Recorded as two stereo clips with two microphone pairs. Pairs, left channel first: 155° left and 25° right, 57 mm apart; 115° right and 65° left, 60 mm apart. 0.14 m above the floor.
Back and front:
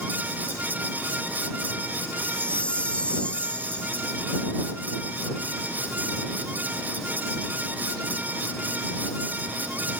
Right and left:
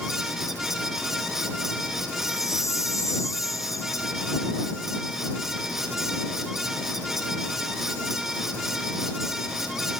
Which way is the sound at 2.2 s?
140° right.